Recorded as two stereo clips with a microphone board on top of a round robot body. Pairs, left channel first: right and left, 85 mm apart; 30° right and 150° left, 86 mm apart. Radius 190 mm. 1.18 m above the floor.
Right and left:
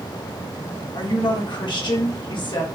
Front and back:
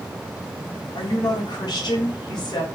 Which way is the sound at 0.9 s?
65° right.